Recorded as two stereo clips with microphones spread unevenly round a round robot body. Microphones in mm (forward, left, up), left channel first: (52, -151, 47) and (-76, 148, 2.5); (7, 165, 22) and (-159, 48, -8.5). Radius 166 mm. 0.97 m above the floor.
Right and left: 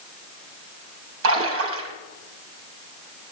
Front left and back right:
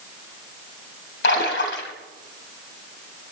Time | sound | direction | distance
1.2 | a splash | 60° left | 3 m